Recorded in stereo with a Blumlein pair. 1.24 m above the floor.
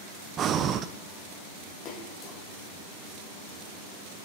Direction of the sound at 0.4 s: 30° right.